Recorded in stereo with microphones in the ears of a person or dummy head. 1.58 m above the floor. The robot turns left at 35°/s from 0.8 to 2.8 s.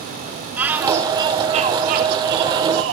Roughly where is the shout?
Ahead.